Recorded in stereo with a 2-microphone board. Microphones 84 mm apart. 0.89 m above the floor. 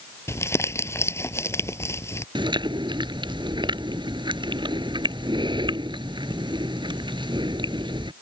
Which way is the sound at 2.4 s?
75° right (ahead or behind).